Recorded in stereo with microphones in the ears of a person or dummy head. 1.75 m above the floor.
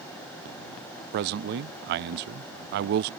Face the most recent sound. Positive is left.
turn(degrees=-55)  # may be behind; listen again after turning